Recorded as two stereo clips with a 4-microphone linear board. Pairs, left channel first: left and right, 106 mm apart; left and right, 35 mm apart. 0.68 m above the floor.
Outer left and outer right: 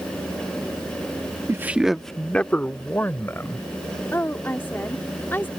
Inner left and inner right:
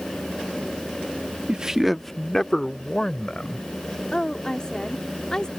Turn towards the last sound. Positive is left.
turn(degrees=20)  # may be behind; listen again after turning